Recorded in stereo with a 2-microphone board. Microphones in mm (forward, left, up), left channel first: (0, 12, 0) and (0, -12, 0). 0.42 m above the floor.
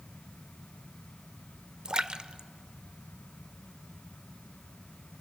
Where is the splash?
35° right (ahead or behind), 0.7 m.